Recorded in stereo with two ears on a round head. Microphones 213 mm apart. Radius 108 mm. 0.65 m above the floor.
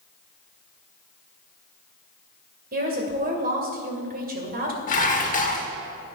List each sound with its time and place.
2.7 s a woman speaking: 40° right (ahead or behind), 2 m
4.9 s dishes clattering: 35° left (ahead or behind), 1.1 m